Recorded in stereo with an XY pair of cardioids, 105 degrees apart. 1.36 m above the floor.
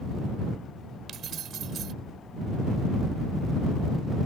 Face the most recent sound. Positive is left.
turn(degrees=-65)